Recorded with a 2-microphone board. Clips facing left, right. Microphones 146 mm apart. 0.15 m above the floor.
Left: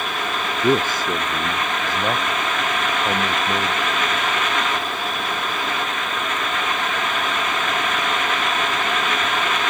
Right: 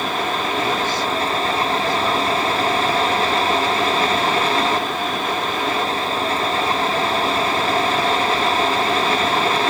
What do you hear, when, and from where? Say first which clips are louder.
0.6 s a man speaking: left 2 dB; 45° left (ahead or behind)